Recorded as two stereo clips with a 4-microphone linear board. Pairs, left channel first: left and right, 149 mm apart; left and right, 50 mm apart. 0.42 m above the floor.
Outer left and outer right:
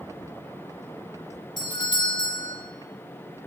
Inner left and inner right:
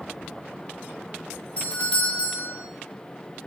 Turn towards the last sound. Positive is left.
turn(degrees=30)  # may be behind; listen again after turning